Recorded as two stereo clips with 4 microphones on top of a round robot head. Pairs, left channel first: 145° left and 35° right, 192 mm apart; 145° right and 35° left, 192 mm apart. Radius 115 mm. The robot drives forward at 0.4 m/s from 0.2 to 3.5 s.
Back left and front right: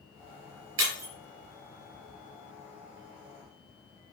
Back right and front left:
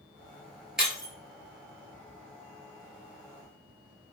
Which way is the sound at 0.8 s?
50° right.